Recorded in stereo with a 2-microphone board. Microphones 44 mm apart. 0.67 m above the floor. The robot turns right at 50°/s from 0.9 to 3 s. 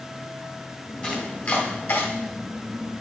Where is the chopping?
15° left (ahead or behind), 2 m; by 2.1 s 70° left (ahead or behind), 2 m.